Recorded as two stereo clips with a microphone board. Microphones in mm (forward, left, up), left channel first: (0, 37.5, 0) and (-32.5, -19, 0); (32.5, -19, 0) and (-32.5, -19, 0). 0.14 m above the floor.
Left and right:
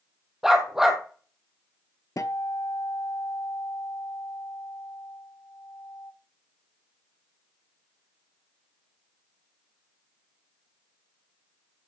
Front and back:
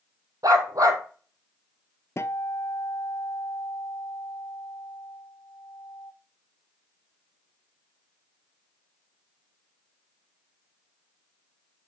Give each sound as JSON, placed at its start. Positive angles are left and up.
{"t": 0.4, "sound": "a dog barking", "azimuth_deg": 155, "distance_m": 2.0}
{"t": 2.2, "sound": "a guitar", "azimuth_deg": 40, "distance_m": 0.6}